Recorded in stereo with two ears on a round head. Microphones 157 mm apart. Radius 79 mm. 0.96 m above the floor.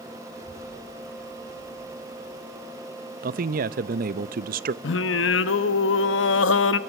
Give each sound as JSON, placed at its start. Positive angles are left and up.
{"t": 0.3, "sound": "a child speaking", "side_deg": 80, "distance_m": 5.5}
{"t": 3.2, "sound": "a man speaking", "side_deg": -55, "distance_m": 0.6}
{"t": 4.8, "sound": "singing", "side_deg": 85, "distance_m": 0.8}